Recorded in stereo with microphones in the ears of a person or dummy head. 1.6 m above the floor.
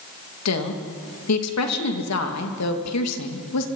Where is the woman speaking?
85° left, 2.5 m.